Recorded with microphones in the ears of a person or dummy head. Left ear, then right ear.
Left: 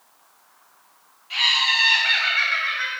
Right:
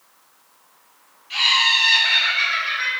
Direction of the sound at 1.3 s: 10° left (ahead or behind).